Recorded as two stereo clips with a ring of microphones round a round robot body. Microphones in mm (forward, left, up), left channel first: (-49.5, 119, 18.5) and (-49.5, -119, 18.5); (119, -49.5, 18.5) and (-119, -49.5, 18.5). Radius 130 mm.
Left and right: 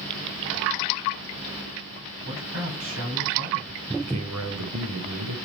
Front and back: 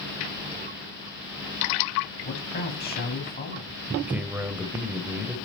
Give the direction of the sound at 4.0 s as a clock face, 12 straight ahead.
3 o'clock.